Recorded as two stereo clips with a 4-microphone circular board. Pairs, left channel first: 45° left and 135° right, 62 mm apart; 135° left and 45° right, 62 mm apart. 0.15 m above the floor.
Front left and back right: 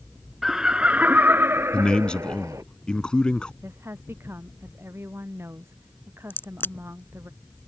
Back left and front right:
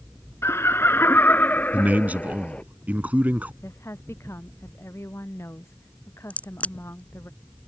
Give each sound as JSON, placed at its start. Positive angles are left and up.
{"t": 0.4, "sound": "laughter", "azimuth_deg": 140}
{"t": 1.7, "sound": "a man speaking", "azimuth_deg": -15}
{"t": 3.6, "sound": "a woman speaking", "azimuth_deg": 180}
{"t": 6.3, "sound": "a crack", "azimuth_deg": 80}